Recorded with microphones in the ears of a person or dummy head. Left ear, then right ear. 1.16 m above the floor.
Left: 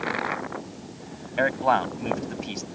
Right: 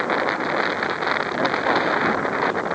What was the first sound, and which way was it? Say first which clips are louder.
A man speaking: left 2 dB; 80° left.